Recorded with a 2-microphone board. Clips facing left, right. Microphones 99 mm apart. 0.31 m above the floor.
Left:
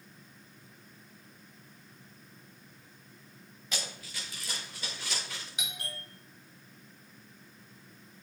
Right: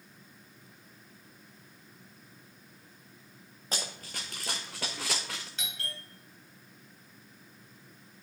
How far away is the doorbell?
About 2 m.